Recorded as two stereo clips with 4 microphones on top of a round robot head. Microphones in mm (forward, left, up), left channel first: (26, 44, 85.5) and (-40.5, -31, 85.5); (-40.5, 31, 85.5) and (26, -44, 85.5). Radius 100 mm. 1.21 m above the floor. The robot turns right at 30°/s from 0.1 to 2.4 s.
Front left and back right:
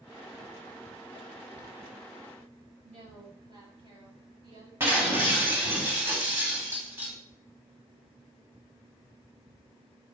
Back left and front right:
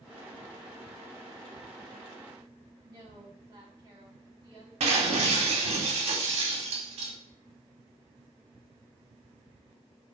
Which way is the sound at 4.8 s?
65° right.